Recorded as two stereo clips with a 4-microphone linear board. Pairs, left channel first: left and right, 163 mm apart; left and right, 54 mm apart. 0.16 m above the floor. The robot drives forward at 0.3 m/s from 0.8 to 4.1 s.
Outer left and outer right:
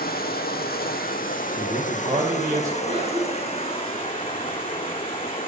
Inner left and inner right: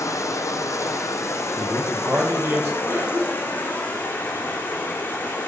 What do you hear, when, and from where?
0.0 s running water: 70° left (ahead or behind), 0.9 m; by 5.5 s 35° left (ahead or behind), 1.6 m
1.6 s a man speaking: 50° right (ahead or behind), 2 m; by 2.8 s 45° right (ahead or behind), 2 m
2.9 s a cough: 40° right (ahead or behind), 1.2 m; by 3.8 s 35° right (ahead or behind), 1.3 m